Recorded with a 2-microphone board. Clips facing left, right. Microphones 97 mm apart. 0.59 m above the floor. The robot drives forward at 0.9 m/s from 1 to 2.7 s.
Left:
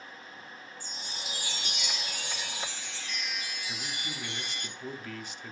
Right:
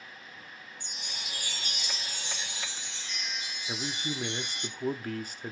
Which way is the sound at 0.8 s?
65° right (ahead or behind).